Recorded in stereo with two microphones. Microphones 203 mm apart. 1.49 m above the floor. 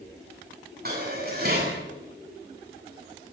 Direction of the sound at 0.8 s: 50° right (ahead or behind).